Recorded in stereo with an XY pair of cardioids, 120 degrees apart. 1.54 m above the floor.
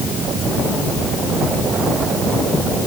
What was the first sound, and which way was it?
Only background noise.